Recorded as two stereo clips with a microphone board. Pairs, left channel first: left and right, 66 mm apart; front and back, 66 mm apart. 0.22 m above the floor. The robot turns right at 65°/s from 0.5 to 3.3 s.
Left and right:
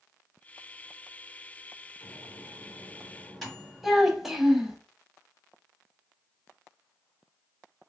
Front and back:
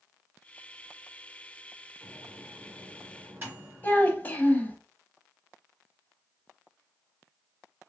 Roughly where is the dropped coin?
No dropped coin in this recording.